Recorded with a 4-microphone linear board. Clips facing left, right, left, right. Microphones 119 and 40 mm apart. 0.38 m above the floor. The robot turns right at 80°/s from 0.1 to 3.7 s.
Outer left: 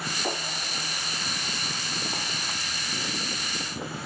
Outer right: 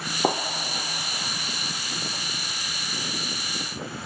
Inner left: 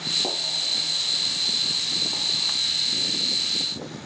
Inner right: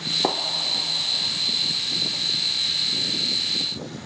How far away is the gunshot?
About 1.0 m.